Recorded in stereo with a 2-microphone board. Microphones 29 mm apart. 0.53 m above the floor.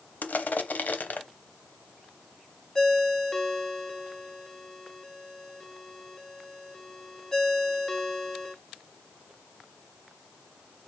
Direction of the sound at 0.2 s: 75° left (ahead or behind).